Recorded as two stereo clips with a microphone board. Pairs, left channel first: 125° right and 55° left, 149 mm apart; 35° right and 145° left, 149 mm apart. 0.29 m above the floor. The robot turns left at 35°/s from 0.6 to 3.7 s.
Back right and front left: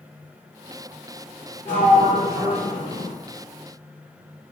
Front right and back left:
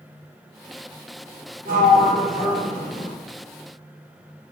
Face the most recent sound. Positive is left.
turn(degrees=90)